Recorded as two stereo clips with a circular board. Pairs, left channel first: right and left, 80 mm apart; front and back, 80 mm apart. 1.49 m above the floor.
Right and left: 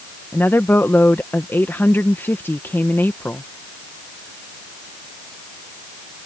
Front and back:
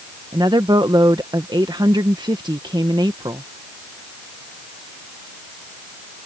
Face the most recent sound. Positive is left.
turn(degrees=-155)